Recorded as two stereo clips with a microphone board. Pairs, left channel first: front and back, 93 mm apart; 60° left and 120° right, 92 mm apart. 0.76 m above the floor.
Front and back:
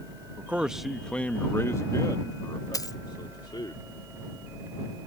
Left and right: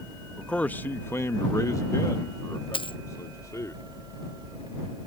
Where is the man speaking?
130° left; by 3.7 s 15° left.